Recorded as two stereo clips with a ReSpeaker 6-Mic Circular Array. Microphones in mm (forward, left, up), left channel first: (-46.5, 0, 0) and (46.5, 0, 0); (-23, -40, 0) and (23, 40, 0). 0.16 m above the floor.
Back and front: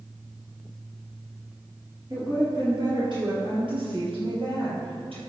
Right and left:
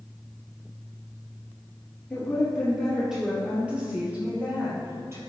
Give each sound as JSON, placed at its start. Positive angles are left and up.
{"t": 2.1, "sound": "a woman speaking", "azimuth_deg": -40, "distance_m": 3.5}